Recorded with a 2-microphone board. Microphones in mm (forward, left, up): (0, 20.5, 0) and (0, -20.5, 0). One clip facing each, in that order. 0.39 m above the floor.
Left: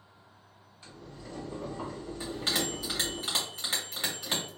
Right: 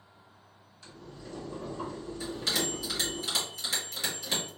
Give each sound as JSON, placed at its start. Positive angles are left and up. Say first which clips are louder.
{"t": 0.8, "sound": "boiling", "louder": "even", "side_deg": 20, "distance_m": 1.9}
{"t": 2.2, "sound": "a bell", "louder": "even", "side_deg": 30, "distance_m": 1.9}